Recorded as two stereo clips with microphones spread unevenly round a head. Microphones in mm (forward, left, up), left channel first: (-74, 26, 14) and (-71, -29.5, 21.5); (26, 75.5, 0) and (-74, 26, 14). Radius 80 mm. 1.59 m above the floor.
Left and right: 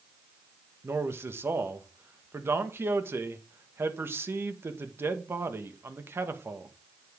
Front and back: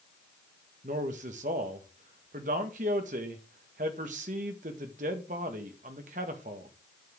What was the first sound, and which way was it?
A man speaking, 125° right.